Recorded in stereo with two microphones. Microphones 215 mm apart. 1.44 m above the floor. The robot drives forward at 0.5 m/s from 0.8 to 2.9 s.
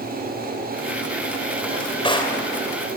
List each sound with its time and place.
1.6 s a drawer: 25° left (ahead or behind), 3 m